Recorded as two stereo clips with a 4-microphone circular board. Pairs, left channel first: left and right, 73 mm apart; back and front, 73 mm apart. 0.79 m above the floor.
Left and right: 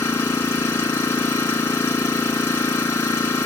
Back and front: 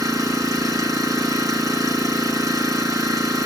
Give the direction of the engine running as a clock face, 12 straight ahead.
11 o'clock.